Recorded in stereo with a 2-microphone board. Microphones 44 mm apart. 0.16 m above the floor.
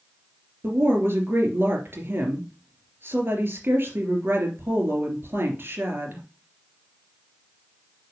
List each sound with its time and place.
0.6 s a woman speaking: 55° right (ahead or behind), 3 m